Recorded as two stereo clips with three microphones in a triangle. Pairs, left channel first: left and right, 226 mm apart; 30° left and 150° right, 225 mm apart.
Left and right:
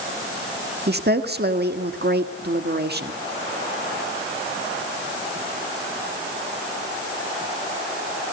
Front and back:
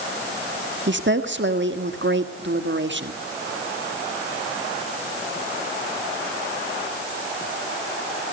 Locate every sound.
0.9 s a woman speaking: 125° right, 1.6 m